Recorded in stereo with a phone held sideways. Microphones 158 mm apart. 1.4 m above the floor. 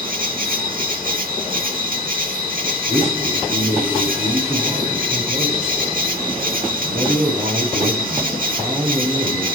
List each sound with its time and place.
0.0 s an insect: 65° right (ahead or behind), 2.5 m
2.9 s a man speaking: 45° right (ahead or behind), 9 m